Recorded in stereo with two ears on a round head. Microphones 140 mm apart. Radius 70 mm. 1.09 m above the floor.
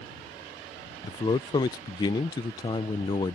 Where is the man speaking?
25° left (ahead or behind).